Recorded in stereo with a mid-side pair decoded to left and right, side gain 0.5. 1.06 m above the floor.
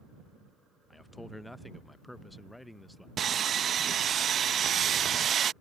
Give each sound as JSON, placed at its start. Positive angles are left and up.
{"t": 0.9, "sound": "a man speaking", "azimuth_deg": 10}
{"t": 3.2, "sound": "sawing", "azimuth_deg": -45}